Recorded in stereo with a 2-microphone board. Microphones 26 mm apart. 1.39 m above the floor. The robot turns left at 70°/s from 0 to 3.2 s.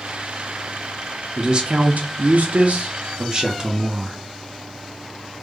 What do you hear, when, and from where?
1.4 s a man speaking: 25° right, 0.5 m; by 4.2 s 150° right, 0.5 m